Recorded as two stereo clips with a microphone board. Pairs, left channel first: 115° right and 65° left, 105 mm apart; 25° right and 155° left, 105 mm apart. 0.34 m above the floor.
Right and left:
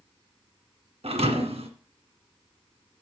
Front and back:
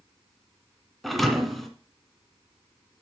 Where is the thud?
65° left, 1.8 m.